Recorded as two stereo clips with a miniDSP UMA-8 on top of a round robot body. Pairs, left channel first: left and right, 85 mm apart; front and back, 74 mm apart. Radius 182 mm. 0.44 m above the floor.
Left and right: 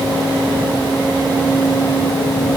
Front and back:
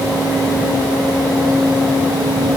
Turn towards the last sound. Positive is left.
No sound to turn to.